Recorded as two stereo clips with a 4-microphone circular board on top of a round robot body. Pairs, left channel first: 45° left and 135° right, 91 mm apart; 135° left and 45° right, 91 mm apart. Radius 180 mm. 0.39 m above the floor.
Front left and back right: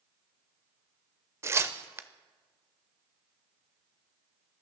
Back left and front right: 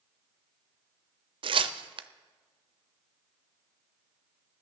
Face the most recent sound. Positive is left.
turn(degrees=-70)